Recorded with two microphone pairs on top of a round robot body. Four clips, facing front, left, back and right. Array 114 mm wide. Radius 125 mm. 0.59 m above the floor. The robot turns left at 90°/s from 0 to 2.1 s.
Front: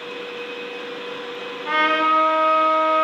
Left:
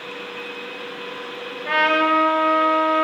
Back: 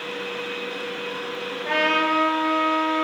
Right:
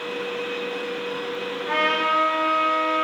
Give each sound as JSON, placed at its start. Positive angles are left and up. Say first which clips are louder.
{"t": 1.6, "sound": "a trumpet", "louder": "left 5 dB, front 3 dB", "azimuth_deg": 125, "distance_m": 4.5}